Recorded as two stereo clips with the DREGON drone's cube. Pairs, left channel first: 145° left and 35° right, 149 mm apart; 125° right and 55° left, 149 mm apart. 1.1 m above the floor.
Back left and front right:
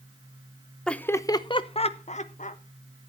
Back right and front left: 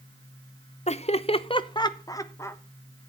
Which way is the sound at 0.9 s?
130° right.